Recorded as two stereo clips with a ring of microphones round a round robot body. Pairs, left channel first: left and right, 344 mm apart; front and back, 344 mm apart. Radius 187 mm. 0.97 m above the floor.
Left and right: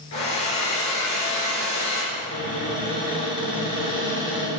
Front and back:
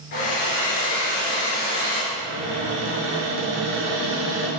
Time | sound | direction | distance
0.1 | a hair dryer | 40° left | 3.5 m
2.1 | a cupboard door | 155° left | 4.5 m